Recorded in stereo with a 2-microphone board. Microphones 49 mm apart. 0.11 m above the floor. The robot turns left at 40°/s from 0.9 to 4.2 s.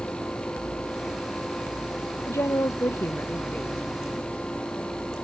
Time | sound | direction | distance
2.3 | a woman speaking | 85° left | ?